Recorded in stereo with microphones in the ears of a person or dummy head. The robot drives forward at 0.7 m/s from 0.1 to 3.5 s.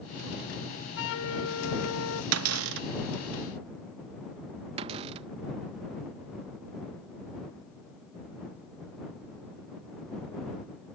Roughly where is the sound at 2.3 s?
Right.